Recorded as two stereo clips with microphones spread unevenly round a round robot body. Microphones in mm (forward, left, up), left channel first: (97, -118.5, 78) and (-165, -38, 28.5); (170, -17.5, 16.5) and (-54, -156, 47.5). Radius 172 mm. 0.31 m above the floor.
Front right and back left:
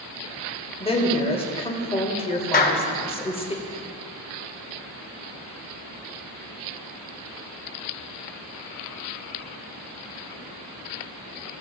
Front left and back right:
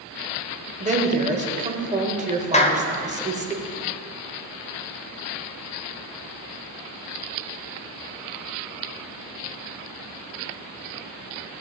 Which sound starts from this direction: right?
A woman speaking, at 0.8 s.